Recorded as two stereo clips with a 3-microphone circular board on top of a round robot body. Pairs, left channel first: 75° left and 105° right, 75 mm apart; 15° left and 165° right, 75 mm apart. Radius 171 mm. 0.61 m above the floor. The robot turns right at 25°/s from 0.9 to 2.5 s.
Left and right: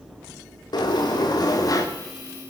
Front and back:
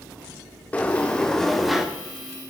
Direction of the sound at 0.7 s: 85° left.